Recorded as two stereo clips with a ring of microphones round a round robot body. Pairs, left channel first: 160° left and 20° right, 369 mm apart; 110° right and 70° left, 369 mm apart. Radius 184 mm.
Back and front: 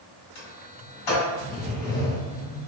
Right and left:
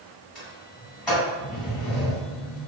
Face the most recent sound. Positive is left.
turn(degrees=160)